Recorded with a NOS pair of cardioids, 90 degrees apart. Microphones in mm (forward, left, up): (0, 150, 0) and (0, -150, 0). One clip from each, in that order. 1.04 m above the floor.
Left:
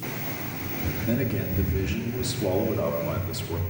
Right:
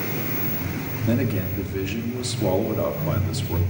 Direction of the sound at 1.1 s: 20° right.